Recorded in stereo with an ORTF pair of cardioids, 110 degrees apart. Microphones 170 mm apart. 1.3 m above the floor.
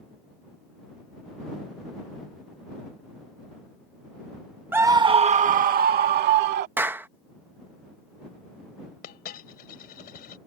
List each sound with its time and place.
4.7 s a scream: 10° right; by 6.7 s 75° right
6.8 s a clap: 10° right
9.0 s a dropped coin: 60° left